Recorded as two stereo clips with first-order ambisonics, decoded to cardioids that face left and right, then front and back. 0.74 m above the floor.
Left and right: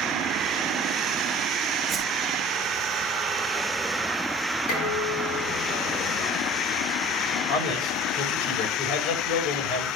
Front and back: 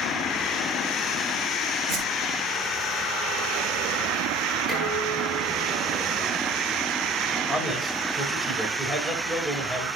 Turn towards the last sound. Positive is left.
turn(degrees=100)